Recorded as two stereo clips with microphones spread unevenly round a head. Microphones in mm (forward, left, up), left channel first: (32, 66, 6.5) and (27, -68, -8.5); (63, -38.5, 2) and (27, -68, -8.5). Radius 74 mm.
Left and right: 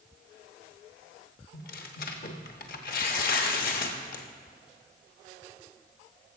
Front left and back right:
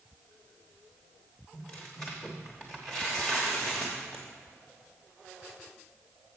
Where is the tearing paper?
125° left, 0.9 m.